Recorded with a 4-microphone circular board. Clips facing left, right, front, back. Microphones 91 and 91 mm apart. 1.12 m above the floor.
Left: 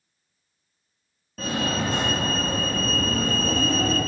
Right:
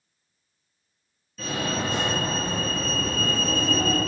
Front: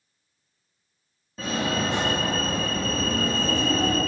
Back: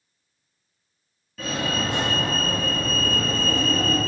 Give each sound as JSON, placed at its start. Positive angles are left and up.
{"t": 1.4, "sound": "a fire alarm", "azimuth_deg": 60, "distance_m": 2.5}